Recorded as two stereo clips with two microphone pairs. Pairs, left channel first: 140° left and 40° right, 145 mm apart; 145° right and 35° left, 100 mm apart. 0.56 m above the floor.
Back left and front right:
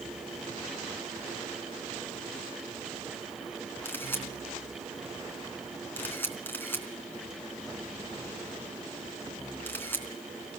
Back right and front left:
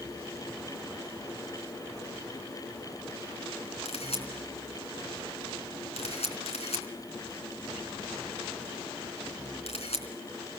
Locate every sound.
3.9 s a camera shutter: 145° right, 3.5 m